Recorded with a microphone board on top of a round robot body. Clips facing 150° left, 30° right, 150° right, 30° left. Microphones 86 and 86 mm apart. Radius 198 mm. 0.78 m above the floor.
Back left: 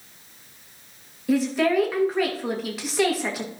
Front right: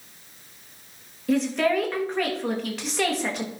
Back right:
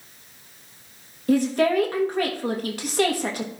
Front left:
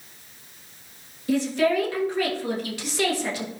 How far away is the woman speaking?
About 1.5 m.